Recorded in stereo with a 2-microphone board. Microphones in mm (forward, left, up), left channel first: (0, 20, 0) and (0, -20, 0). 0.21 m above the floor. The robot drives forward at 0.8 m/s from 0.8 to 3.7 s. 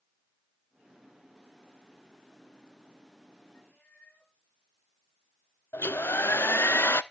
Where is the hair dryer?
75° left (ahead or behind), 0.7 m.